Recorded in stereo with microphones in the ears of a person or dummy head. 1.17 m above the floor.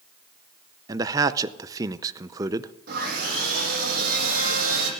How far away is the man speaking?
About 0.5 m.